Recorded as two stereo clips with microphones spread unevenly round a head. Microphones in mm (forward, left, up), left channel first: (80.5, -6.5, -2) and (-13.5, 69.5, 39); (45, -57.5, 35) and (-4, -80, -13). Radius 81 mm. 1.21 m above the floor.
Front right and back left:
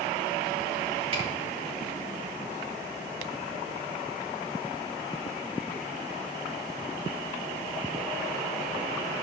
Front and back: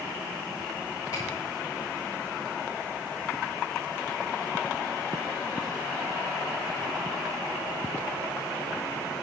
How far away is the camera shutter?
About 4.5 m.